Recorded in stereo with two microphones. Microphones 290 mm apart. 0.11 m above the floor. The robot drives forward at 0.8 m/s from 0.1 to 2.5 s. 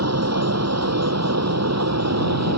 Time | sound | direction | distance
0.0 | an aircraft | 60° right (ahead or behind) | ?